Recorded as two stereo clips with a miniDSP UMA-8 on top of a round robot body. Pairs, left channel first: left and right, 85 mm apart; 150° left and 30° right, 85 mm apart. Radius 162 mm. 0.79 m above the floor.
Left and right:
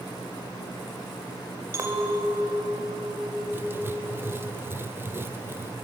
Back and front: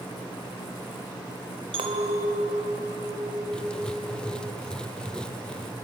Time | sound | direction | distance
1.7 | a clink | 30° right | 2 m
3.5 | writing | 135° right | 1.2 m